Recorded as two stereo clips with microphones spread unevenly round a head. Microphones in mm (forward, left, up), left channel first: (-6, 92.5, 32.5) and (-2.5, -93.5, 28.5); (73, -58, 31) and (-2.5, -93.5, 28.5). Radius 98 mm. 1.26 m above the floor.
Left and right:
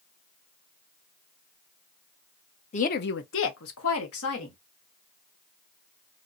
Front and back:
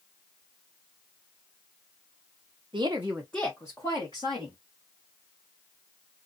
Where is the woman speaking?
145° left, 0.6 m; by 4.5 s 85° left, 1.6 m.